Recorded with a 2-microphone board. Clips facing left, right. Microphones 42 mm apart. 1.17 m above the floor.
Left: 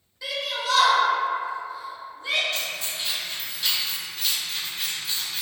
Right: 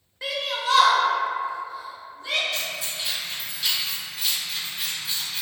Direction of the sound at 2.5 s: 10° right (ahead or behind).